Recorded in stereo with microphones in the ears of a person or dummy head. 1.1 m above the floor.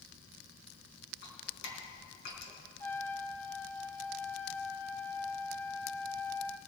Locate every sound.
1.2 s dripping: 60° left (ahead or behind), 4.5 m
2.8 s a trumpet: 10° left (ahead or behind), 0.5 m